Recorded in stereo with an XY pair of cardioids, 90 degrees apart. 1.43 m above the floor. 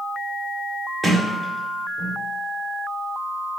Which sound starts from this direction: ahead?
A sliding door, at 1.0 s.